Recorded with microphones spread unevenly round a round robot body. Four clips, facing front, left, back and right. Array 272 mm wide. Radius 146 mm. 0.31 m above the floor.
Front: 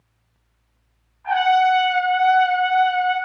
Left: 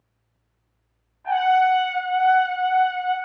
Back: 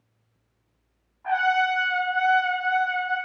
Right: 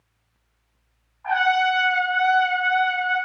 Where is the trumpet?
120° left, 5.5 m.